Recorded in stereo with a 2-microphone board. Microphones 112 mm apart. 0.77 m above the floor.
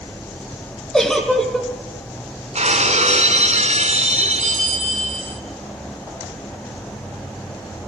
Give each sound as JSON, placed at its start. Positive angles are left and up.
{"t": 0.9, "sound": "a giggle", "side_deg": 5, "distance_m": 3.0}
{"t": 2.5, "sound": "breaking glass", "side_deg": -75, "distance_m": 2.0}